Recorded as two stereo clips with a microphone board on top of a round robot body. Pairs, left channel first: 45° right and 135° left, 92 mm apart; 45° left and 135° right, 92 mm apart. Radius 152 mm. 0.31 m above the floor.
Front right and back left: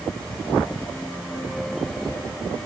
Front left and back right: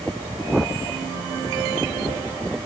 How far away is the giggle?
No giggle in this recording.